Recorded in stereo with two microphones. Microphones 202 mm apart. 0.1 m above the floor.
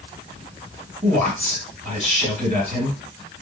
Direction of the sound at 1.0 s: 35° right (ahead or behind).